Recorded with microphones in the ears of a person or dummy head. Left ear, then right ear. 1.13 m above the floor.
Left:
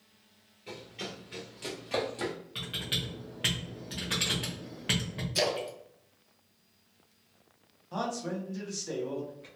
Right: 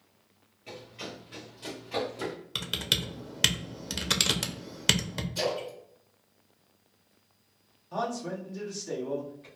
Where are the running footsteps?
Centre (ahead or behind), 1.2 m; by 2.4 s 45° left (ahead or behind), 1.6 m.